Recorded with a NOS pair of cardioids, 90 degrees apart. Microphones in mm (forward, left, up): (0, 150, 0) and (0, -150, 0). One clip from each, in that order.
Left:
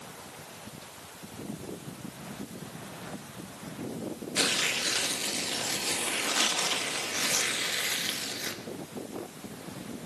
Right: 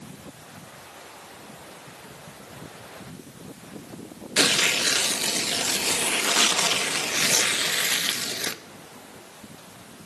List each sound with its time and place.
4.4 s tearing paper: 40° right, 0.9 m